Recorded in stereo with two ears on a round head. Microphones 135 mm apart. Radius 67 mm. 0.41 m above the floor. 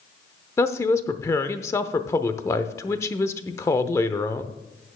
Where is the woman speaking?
20° left (ahead or behind), 0.7 m.